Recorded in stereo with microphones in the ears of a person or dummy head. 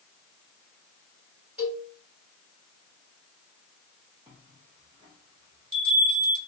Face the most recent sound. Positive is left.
turn(degrees=-25)  # may be behind; listen again after turning